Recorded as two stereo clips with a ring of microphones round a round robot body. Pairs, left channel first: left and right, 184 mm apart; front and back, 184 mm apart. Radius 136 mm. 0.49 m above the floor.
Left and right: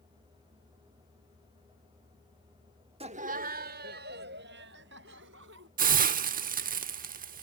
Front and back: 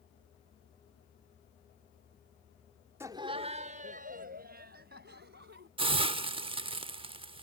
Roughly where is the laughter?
Behind right.